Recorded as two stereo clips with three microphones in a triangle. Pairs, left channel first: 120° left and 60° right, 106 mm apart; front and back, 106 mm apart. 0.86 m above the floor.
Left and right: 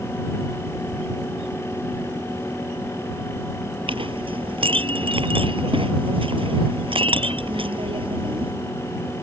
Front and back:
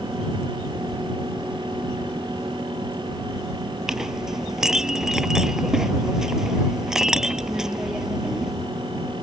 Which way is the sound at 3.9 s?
95° right.